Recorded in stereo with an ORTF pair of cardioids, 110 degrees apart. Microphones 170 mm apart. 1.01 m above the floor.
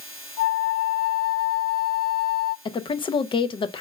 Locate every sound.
0.4 s a flute: 70° left, 0.8 m
2.6 s a woman speaking: 30° left, 0.7 m